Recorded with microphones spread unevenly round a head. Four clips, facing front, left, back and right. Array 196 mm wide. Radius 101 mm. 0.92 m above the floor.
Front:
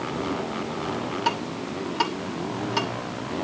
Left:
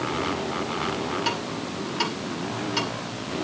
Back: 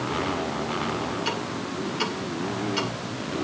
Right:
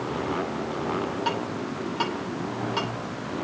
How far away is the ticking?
About 5.5 m.